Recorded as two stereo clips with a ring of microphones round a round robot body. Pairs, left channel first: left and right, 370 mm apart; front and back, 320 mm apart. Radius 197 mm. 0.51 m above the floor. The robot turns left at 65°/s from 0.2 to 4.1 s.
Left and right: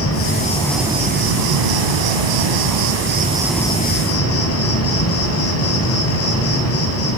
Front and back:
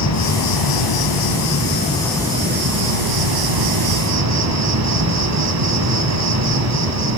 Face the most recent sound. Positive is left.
turn(degrees=145)